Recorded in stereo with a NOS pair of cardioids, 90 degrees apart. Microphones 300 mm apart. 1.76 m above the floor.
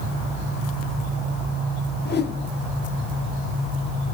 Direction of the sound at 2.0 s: 30° left.